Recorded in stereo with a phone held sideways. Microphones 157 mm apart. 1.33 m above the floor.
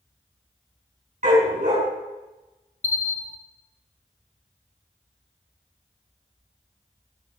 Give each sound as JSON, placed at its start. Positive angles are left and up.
{"t": 1.2, "sound": "a dog barking", "side_deg": -60, "distance_m": 5.0}
{"t": 2.8, "sound": "a bell", "side_deg": 50, "distance_m": 1.3}